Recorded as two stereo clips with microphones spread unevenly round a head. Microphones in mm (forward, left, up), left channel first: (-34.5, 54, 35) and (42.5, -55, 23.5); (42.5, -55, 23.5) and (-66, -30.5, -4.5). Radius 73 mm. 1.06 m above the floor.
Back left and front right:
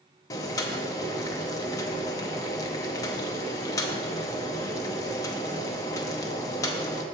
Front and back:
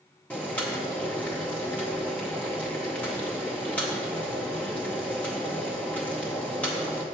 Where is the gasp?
No gasp in this recording.